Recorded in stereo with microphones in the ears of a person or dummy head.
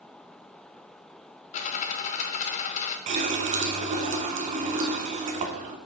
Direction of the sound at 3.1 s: 35° right (ahead or behind).